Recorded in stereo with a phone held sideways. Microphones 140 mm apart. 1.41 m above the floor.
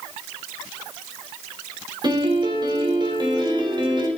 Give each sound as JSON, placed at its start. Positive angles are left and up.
{"t": 2.0, "sound": "a piano", "side_deg": -30, "distance_m": 2.5}